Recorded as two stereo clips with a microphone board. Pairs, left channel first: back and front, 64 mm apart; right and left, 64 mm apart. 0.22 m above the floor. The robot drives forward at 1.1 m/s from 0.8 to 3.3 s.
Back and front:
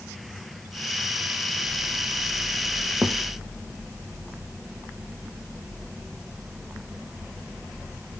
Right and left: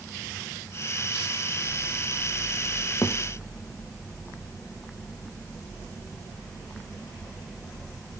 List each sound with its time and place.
3.0 s a thud: 50° right, 2.5 m; by 3.1 s 55° right, 2 m